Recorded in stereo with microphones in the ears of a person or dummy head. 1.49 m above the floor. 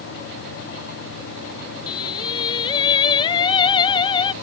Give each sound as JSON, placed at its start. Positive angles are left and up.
{"t": 1.9, "sound": "singing", "side_deg": 25}